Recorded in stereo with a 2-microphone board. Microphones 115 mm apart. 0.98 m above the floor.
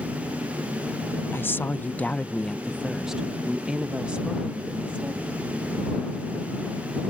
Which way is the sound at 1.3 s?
20° left (ahead or behind).